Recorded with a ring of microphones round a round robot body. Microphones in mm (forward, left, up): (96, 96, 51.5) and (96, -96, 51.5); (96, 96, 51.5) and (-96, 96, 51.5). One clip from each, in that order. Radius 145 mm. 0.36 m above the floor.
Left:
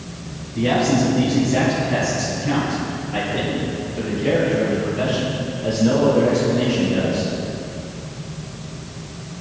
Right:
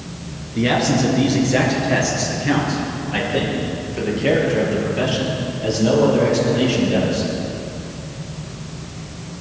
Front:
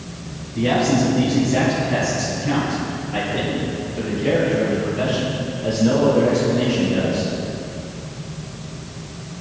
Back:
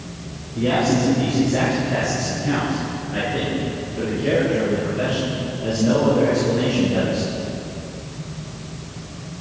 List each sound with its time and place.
0.6 s a man speaking: 60° right, 5.5 m; by 7.3 s 90° right, 9 m